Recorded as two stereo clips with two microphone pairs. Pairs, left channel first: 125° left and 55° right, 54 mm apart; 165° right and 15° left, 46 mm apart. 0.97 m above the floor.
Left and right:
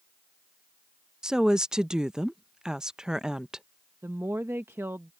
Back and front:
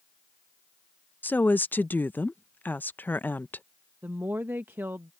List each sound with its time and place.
1.2 s a woman speaking: 130° right
4.0 s a woman speaking: 20° right